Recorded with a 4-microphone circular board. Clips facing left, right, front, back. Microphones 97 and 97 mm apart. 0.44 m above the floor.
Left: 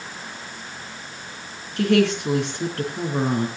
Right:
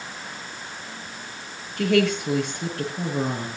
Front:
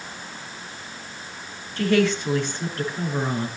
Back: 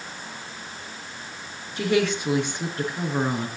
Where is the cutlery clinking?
I don't hear cutlery clinking.